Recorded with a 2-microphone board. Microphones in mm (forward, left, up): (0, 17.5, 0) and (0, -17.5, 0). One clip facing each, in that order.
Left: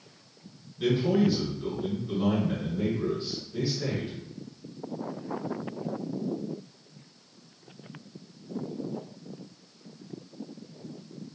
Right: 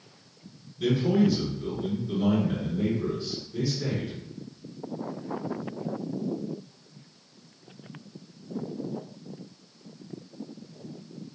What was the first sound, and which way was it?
A man speaking, 25° left (ahead or behind).